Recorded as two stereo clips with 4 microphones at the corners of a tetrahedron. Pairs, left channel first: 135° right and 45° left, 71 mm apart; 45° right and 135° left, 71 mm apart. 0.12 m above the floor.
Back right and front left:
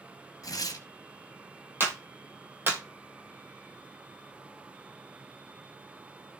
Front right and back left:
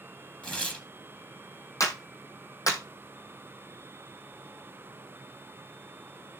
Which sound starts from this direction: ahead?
A clap, at 1.8 s.